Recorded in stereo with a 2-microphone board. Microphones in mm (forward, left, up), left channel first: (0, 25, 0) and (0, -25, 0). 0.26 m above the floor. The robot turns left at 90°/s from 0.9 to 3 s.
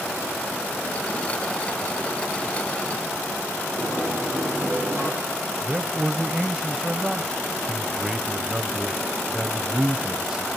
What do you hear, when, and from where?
3.8 s a sliding door: 65° left (ahead or behind), 9.5 m
5.6 s a man speaking: 15° right (ahead or behind), 1.0 m